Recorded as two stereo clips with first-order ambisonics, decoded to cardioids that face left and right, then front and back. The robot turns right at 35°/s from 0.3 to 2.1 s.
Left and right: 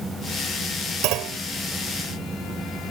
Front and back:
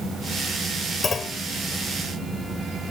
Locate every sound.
1.0 s a clunk: 70° right; by 1.4 s 60° right